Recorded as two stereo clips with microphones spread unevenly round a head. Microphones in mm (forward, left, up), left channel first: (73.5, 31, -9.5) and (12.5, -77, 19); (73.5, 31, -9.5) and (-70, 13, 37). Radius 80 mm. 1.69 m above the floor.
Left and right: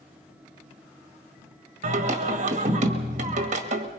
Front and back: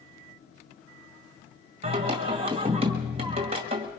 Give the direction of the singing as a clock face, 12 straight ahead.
4 o'clock.